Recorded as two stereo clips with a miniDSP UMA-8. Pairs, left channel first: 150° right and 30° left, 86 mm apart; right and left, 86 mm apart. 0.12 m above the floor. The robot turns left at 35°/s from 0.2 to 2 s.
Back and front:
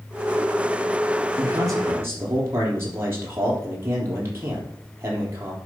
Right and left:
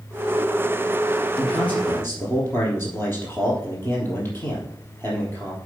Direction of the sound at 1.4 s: 5° right.